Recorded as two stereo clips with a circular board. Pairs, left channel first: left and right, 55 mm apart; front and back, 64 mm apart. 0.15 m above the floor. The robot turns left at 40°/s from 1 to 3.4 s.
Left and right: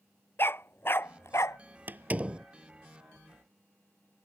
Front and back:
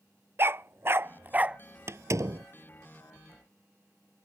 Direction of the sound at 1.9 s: 140° right.